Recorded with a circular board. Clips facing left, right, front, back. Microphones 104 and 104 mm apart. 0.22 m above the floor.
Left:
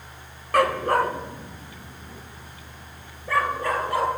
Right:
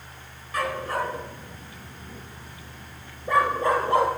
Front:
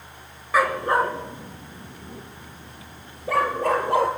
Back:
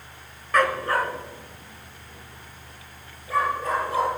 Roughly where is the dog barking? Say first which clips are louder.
Left 7 dB, front 2 dB; left.